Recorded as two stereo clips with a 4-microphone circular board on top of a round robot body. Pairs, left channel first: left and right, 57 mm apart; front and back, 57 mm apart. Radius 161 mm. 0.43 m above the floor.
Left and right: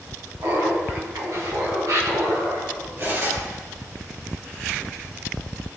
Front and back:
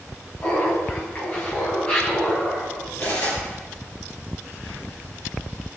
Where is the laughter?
50° right, 5 m; by 2.9 s 75° right, 4 m.